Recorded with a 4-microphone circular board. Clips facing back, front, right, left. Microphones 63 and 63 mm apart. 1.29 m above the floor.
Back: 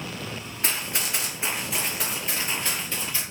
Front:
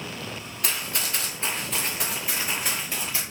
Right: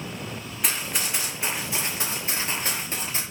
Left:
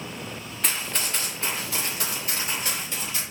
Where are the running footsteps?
170° right, 1.4 m; by 3.2 s 60° right, 1.8 m.